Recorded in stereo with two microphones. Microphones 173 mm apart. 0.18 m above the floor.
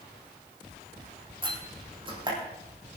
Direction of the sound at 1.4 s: 30° right (ahead or behind).